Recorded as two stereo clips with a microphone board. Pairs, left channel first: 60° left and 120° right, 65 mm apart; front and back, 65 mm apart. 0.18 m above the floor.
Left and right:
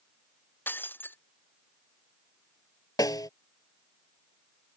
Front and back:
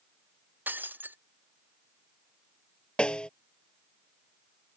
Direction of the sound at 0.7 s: 120° left.